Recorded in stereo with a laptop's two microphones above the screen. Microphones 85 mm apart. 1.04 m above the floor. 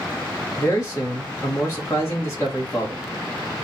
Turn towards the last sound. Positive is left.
turn(degrees=30)  # may be behind; listen again after turning